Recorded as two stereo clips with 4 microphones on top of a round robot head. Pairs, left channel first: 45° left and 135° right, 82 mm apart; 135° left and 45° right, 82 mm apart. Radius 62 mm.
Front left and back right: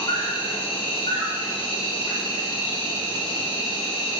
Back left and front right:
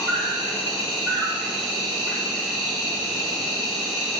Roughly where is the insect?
Ahead left.